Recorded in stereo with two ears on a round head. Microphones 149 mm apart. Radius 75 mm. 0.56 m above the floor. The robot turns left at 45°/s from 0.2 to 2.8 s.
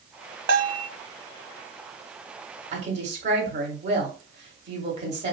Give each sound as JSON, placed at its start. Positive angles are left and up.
{"t": 0.5, "sound": "a bell", "side_deg": -85, "distance_m": 0.6}
{"t": 2.7, "sound": "a woman speaking", "side_deg": -45, "distance_m": 1.5}